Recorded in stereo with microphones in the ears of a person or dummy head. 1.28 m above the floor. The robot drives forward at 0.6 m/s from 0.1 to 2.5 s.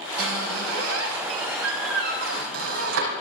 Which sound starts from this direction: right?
A squeak, at 0.2 s.